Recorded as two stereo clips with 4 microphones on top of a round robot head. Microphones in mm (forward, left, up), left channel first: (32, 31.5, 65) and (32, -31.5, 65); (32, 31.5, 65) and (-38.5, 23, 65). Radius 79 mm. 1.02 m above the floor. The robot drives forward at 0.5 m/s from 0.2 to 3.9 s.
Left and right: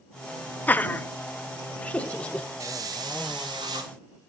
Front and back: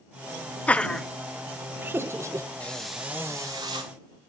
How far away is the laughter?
About 0.7 m.